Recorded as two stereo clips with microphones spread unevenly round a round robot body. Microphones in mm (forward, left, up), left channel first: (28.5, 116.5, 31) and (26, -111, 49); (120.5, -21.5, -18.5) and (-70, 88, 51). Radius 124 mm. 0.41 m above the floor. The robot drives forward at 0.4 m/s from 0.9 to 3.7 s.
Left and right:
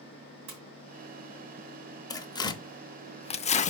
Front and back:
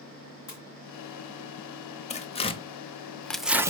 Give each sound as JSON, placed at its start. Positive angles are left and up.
{"t": 0.5, "sound": "a splash", "azimuth_deg": -100, "distance_m": 2.5}
{"t": 2.1, "sound": "tearing paper", "azimuth_deg": 20, "distance_m": 0.9}